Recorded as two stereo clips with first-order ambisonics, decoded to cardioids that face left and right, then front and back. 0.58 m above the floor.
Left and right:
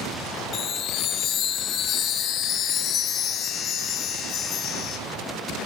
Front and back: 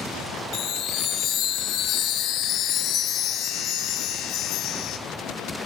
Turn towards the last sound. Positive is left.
turn(degrees=45)